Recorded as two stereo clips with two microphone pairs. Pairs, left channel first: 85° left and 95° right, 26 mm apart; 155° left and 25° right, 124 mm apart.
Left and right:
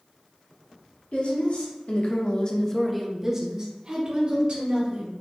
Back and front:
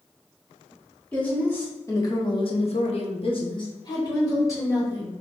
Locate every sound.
1.1 s a woman speaking: 75° left, 1.7 m; by 5.1 s 140° right, 2.5 m